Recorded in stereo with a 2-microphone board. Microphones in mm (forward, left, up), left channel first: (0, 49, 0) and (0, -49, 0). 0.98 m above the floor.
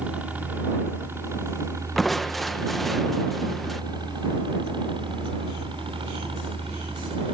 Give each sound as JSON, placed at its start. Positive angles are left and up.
{"t": 0.0, "sound": "a helicopter", "side_deg": -15}
{"t": 2.0, "sound": "crushing", "side_deg": 0}